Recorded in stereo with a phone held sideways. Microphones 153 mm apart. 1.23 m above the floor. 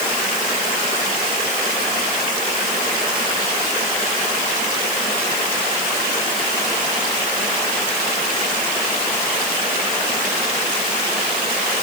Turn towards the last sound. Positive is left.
No sound to turn to.